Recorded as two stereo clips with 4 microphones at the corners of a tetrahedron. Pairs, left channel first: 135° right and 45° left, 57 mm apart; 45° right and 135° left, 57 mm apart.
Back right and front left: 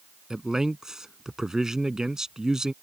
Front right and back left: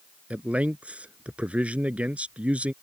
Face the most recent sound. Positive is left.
turn(degrees=110)